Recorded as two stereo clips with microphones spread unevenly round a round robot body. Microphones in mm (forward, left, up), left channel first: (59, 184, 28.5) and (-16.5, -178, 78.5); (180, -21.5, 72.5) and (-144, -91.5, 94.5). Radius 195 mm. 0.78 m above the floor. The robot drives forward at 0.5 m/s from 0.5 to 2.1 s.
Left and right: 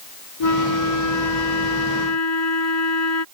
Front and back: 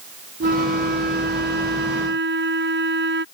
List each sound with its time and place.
0.4 s a flute: 125° left; by 3.2 s 130° left